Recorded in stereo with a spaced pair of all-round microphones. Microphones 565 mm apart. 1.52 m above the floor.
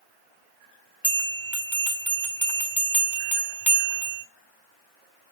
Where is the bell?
5° right (ahead or behind), 1.2 m.